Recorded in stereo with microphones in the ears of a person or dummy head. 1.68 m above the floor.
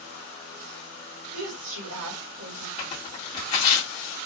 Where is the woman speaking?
75° right (ahead or behind), 2.5 m.